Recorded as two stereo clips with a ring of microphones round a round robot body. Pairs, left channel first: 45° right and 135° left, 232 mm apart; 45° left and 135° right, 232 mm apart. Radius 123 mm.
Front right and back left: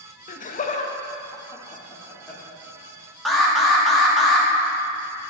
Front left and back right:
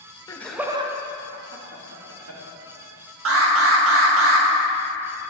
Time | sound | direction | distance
0.3 | laughter | 20° right | 0.6 m
3.2 | an alarm | 135° right | 1.0 m